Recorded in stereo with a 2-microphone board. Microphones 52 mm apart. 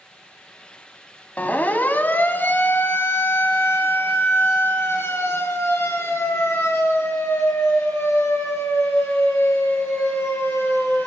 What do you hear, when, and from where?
1.4 s a siren: 30° left (ahead or behind), 2 m; by 11.1 s 60° left (ahead or behind), 7 m